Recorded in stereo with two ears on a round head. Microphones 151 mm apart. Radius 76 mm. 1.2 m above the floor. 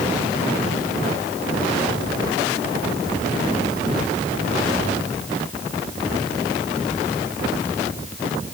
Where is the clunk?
No clunk in this recording.